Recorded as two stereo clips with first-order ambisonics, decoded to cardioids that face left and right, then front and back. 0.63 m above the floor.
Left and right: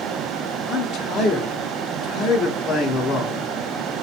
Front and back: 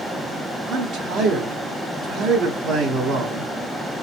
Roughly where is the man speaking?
Behind left.